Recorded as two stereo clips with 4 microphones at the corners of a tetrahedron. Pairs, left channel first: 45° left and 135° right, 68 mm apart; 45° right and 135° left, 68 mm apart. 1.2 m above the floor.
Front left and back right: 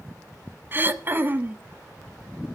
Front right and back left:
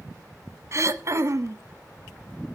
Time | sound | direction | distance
0.7 | throat clearing | 170° left | 0.7 m